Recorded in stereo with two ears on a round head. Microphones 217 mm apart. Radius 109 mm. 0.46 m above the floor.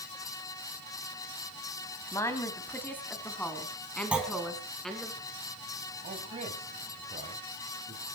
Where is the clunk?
5° right (ahead or behind), 3.5 m.